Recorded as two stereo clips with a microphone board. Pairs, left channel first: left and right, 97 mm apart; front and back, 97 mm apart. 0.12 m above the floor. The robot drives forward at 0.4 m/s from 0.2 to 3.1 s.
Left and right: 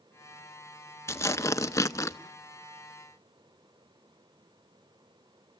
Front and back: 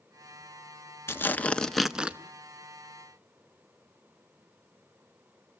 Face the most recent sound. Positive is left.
turn(degrees=150)